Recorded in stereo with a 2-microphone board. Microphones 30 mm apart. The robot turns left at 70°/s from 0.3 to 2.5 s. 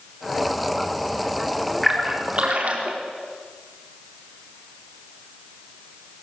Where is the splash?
Centre (ahead or behind), 4.5 m; by 3.0 s 50° right (ahead or behind), 4.5 m.